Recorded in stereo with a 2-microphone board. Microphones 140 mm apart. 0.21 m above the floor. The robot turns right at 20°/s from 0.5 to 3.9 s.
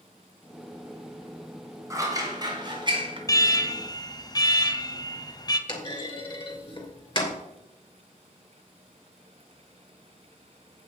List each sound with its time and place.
1.9 s scissors: 25° right (ahead or behind), 2 m; by 3.2 s 40° right (ahead or behind), 2 m
3.3 s an alarm: 25° left (ahead or behind), 0.9 m; by 5.6 s 30° left (ahead or behind), 0.9 m
5.7 s a clunk: 35° left (ahead or behind), 2.5 m